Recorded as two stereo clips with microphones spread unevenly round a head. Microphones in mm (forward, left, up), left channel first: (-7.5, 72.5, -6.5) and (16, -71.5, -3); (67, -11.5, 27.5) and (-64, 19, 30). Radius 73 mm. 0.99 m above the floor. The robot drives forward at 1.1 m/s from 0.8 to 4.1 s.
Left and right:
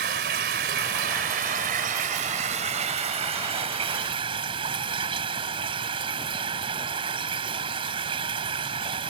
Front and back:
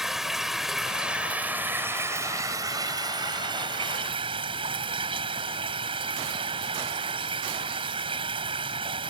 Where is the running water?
105° right; by 9.1 s 140° right.